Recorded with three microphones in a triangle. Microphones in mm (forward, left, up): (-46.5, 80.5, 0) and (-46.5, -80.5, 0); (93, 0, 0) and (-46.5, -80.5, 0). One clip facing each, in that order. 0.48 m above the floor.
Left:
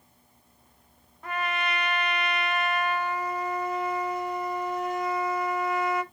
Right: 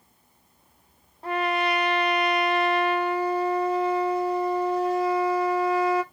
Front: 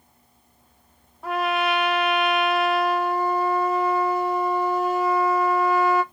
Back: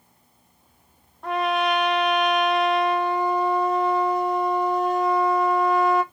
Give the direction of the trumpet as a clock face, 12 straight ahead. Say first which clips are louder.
Right 6 dB, back 1 dB; 2 o'clock.